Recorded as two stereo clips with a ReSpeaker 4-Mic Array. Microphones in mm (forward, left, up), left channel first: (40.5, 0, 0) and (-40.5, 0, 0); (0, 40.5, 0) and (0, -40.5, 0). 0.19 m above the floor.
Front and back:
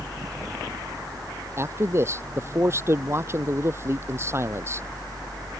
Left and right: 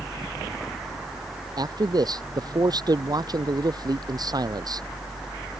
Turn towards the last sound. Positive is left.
turn(degrees=-125)